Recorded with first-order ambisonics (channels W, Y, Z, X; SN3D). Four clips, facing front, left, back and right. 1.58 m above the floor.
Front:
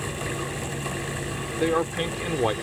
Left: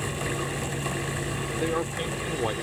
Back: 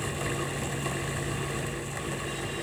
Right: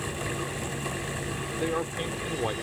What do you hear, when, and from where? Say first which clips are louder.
1.6 s a man speaking: left 1 dB, front 11 dB; 5° left